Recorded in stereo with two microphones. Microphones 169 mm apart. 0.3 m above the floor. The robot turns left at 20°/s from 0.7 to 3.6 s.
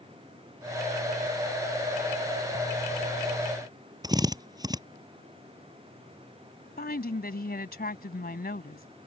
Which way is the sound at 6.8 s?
60° left (ahead or behind).